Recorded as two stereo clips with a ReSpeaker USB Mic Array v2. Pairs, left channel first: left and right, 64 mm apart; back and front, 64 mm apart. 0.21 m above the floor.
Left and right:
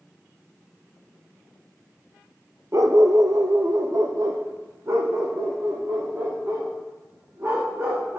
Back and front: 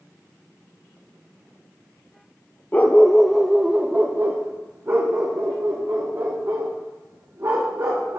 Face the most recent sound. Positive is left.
turn(degrees=-35)